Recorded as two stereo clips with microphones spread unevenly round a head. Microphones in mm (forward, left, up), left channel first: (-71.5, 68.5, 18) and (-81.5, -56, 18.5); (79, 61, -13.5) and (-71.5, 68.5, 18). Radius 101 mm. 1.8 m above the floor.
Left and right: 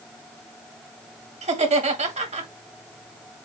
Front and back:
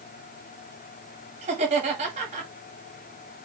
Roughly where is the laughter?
Behind right.